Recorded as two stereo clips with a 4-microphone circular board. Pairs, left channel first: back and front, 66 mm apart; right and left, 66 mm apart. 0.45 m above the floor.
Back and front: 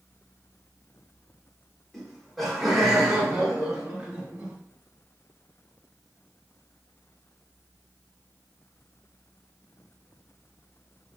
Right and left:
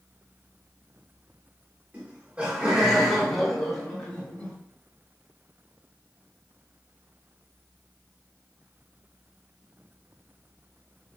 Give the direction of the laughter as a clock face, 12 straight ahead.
9 o'clock.